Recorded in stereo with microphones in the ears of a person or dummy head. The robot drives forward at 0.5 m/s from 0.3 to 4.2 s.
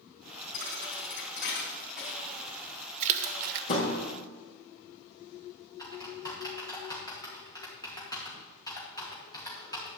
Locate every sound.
0.5 s a thud: 65° left (ahead or behind), 3 m; by 4.0 s 45° left (ahead or behind), 3.5 m
3.0 s a splash: 35° right (ahead or behind), 0.8 m; by 3.7 s 55° right (ahead or behind), 0.6 m
5.8 s typing on a keyboard: 20° left (ahead or behind), 2 m